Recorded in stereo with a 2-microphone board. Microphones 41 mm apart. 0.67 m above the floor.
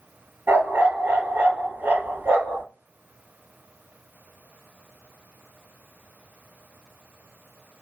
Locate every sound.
0.5 s a dog barking: 65° right (ahead or behind), 4 m